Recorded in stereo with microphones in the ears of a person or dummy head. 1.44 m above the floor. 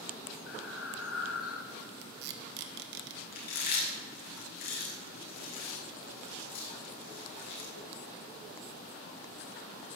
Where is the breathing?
75° left (ahead or behind), 1.1 m.